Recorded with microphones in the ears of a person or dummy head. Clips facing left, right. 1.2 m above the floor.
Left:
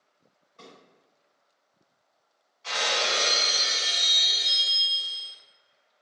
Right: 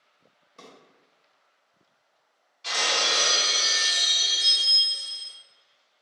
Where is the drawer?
65° right (ahead or behind), 1.1 m.